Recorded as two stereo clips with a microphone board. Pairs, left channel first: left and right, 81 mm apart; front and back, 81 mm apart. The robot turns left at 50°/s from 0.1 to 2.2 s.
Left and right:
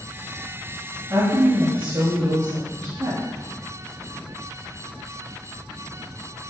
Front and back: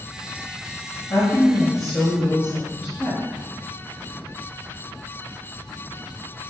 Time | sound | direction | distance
1.1 | a woman speaking | 45° right | 2.5 m